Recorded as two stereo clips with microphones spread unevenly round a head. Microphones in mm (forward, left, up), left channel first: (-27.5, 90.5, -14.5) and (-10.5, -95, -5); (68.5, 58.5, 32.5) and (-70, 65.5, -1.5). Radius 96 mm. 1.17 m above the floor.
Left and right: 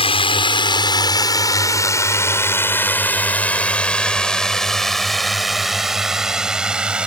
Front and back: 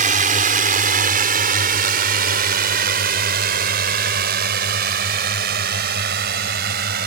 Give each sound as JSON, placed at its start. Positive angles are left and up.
{"t": 0.0, "sound": "a drone", "azimuth_deg": 155}